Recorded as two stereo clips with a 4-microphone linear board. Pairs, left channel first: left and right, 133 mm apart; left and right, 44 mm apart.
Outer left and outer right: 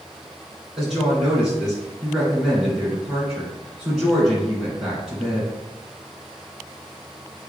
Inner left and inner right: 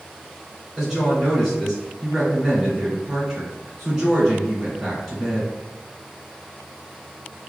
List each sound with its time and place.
0.8 s a woman speaking: 5° right (ahead or behind), 2.0 m